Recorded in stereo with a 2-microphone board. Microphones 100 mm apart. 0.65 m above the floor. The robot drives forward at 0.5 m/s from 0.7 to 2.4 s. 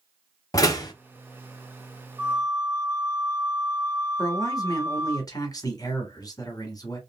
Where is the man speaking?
40° left (ahead or behind), 1.2 m.